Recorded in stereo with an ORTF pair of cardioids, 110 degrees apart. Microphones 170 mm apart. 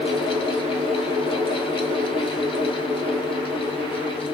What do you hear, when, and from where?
0.0 s a fan: 30° left, 0.9 m